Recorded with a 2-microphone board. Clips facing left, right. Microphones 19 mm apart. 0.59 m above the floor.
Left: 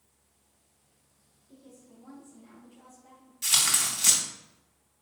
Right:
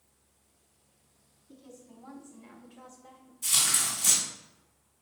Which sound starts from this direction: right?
A woman speaking, at 1.5 s.